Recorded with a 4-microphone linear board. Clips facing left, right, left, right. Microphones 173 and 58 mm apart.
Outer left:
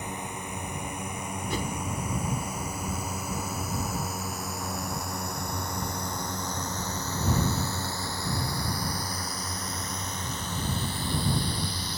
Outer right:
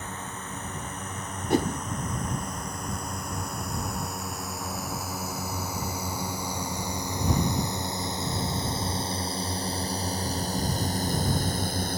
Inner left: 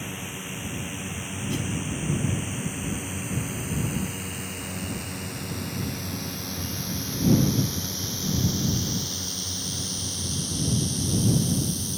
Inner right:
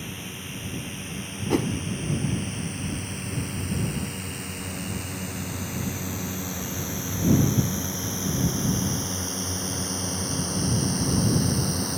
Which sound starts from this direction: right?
A whoosh, at 1.5 s.